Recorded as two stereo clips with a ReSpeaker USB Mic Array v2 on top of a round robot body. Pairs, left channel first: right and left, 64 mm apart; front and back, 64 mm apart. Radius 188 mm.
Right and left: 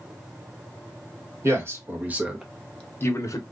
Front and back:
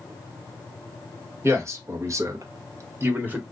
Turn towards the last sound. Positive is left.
turn(degrees=-115)